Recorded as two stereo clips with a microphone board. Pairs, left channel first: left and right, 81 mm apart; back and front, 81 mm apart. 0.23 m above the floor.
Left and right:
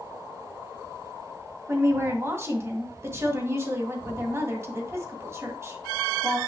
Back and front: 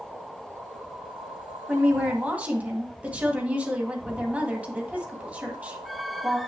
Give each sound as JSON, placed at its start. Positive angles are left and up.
{"t": 1.7, "sound": "a woman speaking", "azimuth_deg": -60, "distance_m": 1.9}